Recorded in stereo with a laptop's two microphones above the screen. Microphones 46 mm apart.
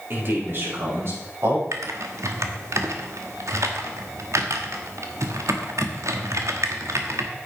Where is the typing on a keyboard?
85° right, 1.2 m.